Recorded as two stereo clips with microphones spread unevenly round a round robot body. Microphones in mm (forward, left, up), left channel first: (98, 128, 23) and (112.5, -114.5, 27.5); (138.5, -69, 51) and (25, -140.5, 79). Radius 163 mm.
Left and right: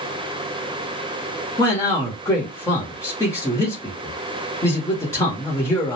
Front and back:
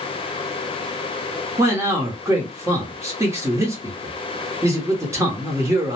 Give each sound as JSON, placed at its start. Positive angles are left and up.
{"t": 1.6, "sound": "a man speaking", "azimuth_deg": 150, "distance_m": 0.9}